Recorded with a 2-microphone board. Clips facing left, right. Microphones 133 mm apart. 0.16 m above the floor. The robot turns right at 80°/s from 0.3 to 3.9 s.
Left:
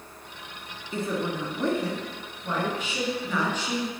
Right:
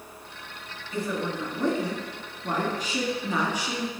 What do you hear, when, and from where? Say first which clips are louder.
0.9 s a woman speaking: left 1 dB; 120° left, 1.5 m; by 3.9 s straight ahead, 1.5 m